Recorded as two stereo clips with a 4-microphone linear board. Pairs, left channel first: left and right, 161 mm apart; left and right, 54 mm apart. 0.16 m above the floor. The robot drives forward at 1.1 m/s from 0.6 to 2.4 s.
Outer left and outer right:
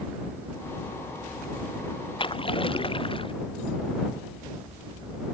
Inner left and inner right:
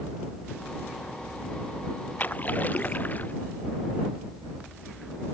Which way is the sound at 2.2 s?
30° left (ahead or behind).